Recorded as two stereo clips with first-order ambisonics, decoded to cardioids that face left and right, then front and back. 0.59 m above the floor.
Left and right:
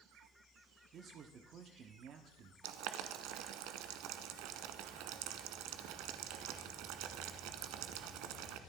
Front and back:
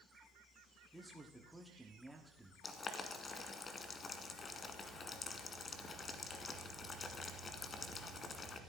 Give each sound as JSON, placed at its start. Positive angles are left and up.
{"t": 0.9, "sound": "a man speaking", "azimuth_deg": -95, "distance_m": 1.1}
{"t": 2.6, "sound": "boiling", "azimuth_deg": -70, "distance_m": 1.2}